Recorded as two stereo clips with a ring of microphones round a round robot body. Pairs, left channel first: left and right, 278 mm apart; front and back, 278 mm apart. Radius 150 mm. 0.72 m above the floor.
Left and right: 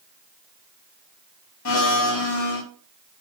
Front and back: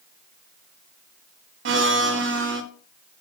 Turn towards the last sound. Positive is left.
turn(degrees=135)